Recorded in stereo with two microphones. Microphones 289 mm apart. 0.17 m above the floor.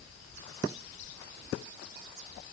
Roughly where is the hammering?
I don't hear hammering.